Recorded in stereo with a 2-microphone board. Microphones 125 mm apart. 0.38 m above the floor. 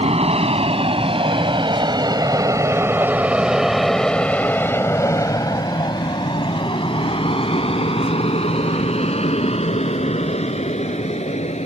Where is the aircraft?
60° right (ahead or behind); by 11.7 s 65° left (ahead or behind).